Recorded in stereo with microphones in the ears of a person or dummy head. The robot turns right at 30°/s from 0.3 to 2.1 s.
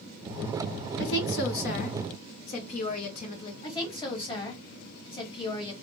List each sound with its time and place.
1.0 s a woman speaking: 100° left, 1.0 m; by 3.5 s 130° left, 1.0 m
3.6 s a woman speaking: 20° left (ahead or behind), 1.5 m